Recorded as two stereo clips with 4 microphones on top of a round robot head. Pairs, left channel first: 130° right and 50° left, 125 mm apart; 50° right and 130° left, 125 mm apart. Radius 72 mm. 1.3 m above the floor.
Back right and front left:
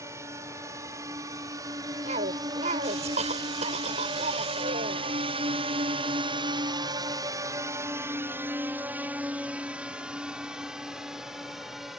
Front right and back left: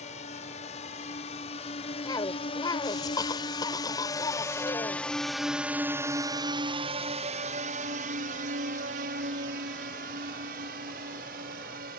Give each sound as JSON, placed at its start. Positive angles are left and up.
{"t": 0.0, "sound": "a drone", "azimuth_deg": -15}
{"t": 2.0, "sound": "a cough", "azimuth_deg": 10}